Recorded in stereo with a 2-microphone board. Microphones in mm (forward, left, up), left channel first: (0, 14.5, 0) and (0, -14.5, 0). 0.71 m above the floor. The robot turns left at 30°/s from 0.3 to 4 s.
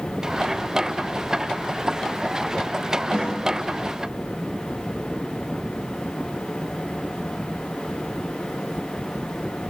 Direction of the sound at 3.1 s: 30° right (ahead or behind).